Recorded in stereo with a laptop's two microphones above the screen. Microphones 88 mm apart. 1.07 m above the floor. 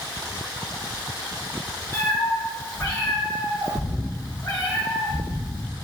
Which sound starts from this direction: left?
A cat meowing, at 1.9 s.